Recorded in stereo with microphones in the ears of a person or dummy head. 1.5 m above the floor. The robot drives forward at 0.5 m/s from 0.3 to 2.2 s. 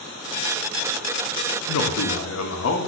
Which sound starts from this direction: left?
A man speaking, at 1.7 s.